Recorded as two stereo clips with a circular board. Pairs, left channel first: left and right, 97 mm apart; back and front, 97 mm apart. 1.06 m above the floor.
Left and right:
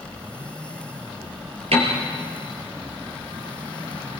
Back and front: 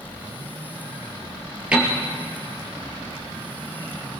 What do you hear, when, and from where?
1.7 s a piano: 80° right, 4 m